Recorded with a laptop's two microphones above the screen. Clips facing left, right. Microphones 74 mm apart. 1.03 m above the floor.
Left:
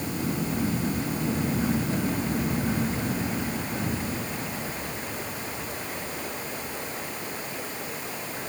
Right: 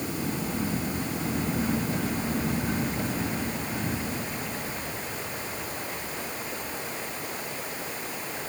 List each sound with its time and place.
Only background noise.